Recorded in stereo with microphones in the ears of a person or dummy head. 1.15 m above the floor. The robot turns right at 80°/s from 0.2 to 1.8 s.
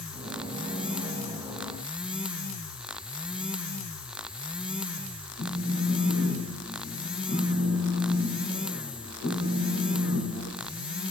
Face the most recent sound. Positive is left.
turn(degrees=70)  # may be behind; listen again after turning